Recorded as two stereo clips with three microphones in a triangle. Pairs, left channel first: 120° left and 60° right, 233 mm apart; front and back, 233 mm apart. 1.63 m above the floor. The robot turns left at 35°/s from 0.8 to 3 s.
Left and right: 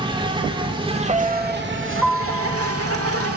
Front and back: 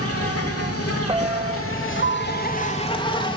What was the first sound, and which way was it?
An insect, 10° left.